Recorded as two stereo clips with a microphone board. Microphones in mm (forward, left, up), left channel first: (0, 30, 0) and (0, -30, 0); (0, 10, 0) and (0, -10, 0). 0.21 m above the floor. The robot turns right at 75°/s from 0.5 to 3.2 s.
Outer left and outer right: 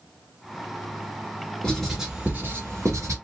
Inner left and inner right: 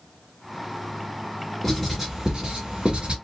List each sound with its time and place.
1.6 s writing: 10° left (ahead or behind), 1.4 m; by 3.1 s 55° right (ahead or behind), 1.4 m